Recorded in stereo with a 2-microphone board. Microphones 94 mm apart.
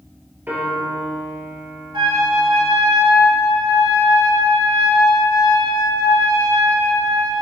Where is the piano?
20° right (ahead or behind), 3 m.